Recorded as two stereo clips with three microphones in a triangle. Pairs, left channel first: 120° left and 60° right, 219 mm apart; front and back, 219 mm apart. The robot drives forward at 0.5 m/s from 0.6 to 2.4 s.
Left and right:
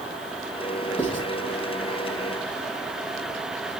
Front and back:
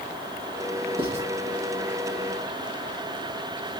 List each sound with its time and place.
1.0 s writing: 165° right, 1.4 m; by 1.3 s 170° right, 1.5 m